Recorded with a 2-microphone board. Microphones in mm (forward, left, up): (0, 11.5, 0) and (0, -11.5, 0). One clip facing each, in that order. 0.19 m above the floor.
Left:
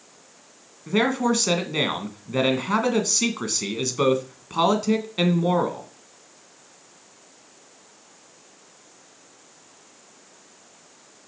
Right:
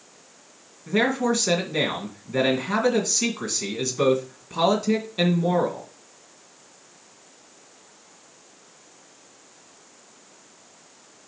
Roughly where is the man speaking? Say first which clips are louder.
Even; left.